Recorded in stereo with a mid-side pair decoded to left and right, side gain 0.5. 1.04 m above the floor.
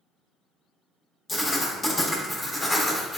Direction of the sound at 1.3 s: 20° left.